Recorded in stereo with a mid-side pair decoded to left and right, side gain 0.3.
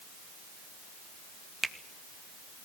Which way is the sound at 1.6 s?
5° right.